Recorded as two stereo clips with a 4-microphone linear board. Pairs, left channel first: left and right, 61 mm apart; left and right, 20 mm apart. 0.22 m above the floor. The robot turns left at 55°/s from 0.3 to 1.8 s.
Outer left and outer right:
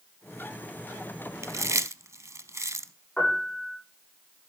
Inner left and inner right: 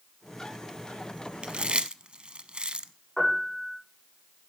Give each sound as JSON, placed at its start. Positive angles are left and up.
{"t": 1.4, "sound": "chewing", "side_deg": -60, "distance_m": 0.6}
{"t": 3.2, "sound": "a piano", "side_deg": 20, "distance_m": 8.5}